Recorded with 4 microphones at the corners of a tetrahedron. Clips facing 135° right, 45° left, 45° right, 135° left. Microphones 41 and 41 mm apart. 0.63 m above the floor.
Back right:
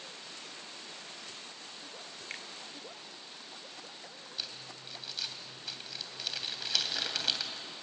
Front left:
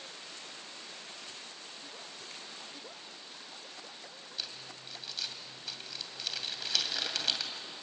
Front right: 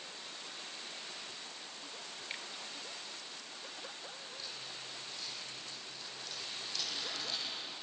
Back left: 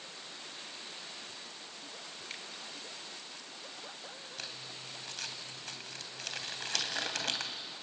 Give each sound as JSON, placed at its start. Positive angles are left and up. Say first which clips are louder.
{"t": 2.3, "sound": "a finger snap", "louder": "back right 5 dB, front right 2 dB", "azimuth_deg": -120, "distance_m": 1.3}
{"t": 4.4, "sound": "crumpling", "louder": "even, back left 3 dB", "azimuth_deg": 140, "distance_m": 2.5}